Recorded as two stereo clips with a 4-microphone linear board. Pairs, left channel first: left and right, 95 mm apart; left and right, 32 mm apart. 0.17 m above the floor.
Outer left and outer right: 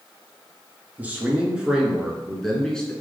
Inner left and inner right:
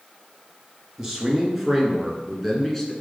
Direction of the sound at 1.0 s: 15° right (ahead or behind).